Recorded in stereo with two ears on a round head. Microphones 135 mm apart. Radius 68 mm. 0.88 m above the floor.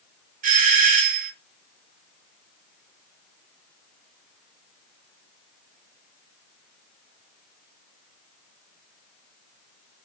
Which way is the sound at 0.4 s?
60° right (ahead or behind).